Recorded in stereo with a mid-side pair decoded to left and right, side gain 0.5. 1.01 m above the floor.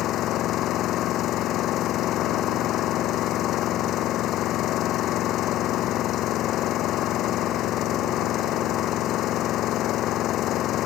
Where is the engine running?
65° left.